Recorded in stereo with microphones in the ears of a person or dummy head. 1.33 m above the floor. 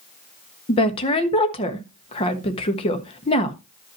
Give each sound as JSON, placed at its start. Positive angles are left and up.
{"t": 0.7, "sound": "a woman speaking", "side_deg": 30, "distance_m": 1.4}